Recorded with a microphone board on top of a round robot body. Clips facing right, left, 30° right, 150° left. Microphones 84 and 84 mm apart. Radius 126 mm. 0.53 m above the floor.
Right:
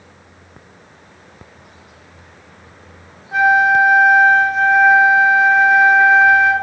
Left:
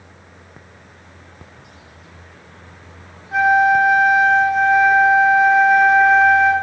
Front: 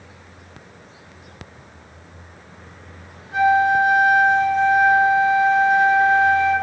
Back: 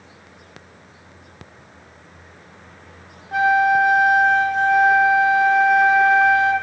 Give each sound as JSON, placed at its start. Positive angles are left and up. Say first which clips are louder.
{"t": 3.3, "sound": "a flute", "louder": "right 1 dB, even", "azimuth_deg": 180, "distance_m": 1.2}